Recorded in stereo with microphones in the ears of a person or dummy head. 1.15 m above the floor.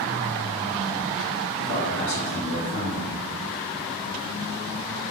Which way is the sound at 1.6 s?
70° left (ahead or behind).